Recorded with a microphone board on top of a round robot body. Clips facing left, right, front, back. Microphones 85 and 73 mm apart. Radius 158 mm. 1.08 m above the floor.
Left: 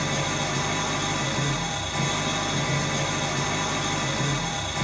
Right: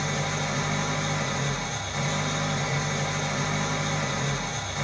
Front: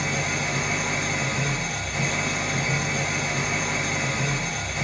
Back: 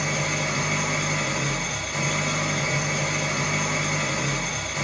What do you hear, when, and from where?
0.0 s an engine running: 105° left, 1.9 m